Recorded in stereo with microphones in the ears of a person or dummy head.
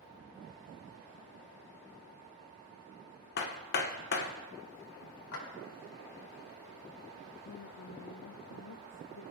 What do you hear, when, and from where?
3.4 s hammering: 50° left (ahead or behind), 1.3 m
5.3 s a clap: 80° left, 4.5 m
7.5 s a woman speaking: 65° left (ahead or behind), 0.6 m